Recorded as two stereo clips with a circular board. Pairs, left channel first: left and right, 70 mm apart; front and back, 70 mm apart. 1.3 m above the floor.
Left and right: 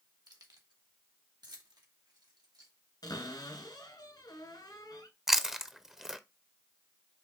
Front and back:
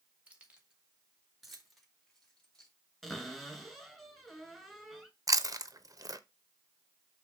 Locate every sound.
0.3 s keys jangling: 110° right, 1.7 m; by 2.7 s 80° right, 2.5 m
3.0 s a cupboard door: 85° left, 3 m
5.3 s chewing: 175° right, 0.7 m